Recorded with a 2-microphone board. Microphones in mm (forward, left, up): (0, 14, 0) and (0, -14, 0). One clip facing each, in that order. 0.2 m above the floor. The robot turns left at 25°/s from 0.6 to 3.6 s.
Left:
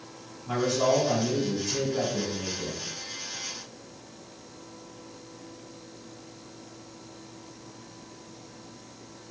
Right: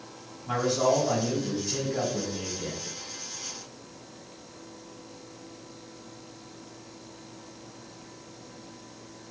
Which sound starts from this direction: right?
A man speaking, at 0.5 s.